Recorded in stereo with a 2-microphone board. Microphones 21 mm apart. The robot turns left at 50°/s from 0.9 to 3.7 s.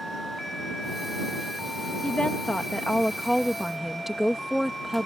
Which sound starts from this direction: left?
A woman speaking, at 2.0 s.